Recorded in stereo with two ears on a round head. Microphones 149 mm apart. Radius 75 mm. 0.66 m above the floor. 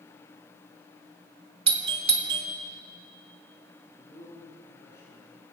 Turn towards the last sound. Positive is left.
turn(degrees=15)  # may be behind; listen again after turning